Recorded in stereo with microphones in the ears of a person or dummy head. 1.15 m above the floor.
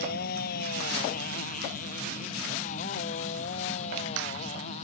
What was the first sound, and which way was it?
A motorcycle, 60° left (ahead or behind).